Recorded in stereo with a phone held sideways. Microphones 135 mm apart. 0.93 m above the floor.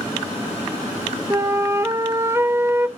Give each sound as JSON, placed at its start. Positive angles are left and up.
{"t": 1.3, "sound": "a flute", "side_deg": -20, "distance_m": 1.0}